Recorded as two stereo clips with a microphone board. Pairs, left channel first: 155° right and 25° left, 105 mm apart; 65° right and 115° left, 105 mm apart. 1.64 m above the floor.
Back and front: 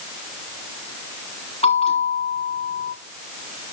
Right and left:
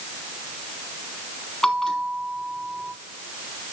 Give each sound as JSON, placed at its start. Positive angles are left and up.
{"t": 1.6, "sound": "a bell", "azimuth_deg": -155, "distance_m": 4.0}